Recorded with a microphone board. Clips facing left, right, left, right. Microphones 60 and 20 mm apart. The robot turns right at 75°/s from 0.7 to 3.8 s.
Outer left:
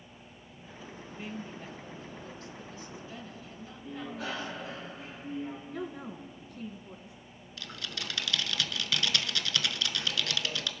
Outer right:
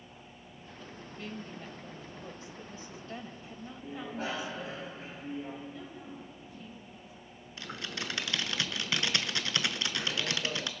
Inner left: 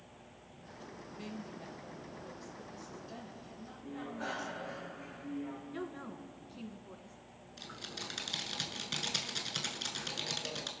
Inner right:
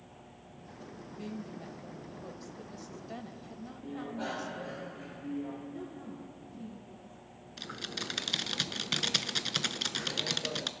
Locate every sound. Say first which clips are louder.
1.1 s a woman speaking: outer left 1 dB, inner right 4 dB; 20° left (ahead or behind), 1.2 m; by 4.8 s 10° right (ahead or behind), 1.2 m
3.8 s a bicycle bell: outer right 1 dB, inner right 3 dB; 35° right (ahead or behind), 5.5 m
5.7 s a woman speaking: outer left 6 dB, even; 65° left (ahead or behind), 3 m
7.6 s typing on a keyboard: outer right 2 dB, inner right 5 dB; 25° right (ahead or behind), 0.8 m